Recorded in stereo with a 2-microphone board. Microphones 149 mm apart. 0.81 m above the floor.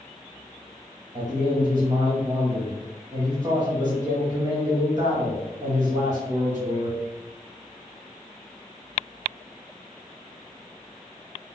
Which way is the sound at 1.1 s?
30° right (ahead or behind).